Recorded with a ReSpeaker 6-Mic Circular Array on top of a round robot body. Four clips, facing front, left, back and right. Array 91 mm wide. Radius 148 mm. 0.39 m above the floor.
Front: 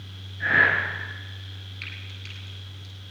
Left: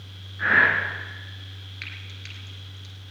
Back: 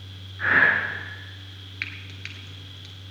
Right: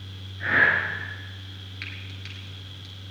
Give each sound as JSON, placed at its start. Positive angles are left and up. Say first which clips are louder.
{"t": 0.4, "sound": "breathing", "louder": "left 2 dB, back 1 dB", "azimuth_deg": 135, "distance_m": 5.5}
{"t": 1.8, "sound": "frying", "louder": "right 1 dB, back 6 dB", "azimuth_deg": 175, "distance_m": 1.3}